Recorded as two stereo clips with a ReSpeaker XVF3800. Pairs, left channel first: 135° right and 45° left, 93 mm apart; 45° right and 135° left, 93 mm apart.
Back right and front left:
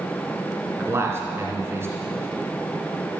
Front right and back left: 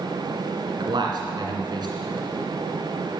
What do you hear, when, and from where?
0.8 s a man speaking: 105° left, 2.5 m